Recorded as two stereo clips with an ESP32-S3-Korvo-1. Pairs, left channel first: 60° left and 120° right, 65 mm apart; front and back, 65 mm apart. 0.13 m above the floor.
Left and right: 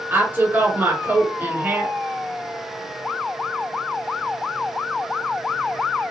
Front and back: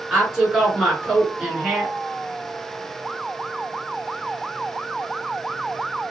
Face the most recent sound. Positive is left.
turn(degrees=-105)